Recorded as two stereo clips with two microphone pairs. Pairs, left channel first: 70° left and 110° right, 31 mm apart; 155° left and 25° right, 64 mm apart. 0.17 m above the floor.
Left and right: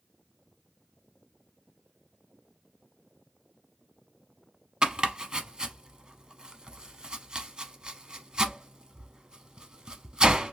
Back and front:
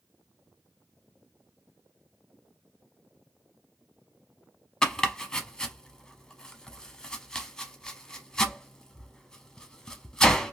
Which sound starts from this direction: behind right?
Chopping, at 4.8 s.